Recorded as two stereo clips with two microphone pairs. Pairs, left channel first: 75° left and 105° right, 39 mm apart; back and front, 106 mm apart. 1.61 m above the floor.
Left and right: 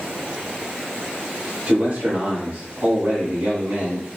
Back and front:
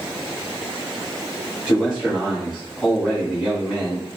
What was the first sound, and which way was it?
A man speaking, 85° right.